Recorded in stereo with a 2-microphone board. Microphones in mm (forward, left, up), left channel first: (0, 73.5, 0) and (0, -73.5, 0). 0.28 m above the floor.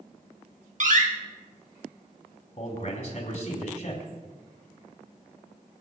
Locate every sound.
0.8 s a door slam: 60° right (ahead or behind), 2.5 m
2.6 s a man speaking: 55° left (ahead or behind), 2.5 m